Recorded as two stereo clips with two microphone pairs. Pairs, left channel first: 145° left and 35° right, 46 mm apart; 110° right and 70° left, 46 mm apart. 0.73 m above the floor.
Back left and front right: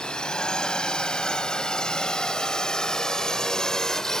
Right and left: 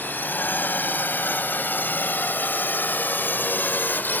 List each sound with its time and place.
0.0 s a drone: 145° right; by 4.2 s 140° right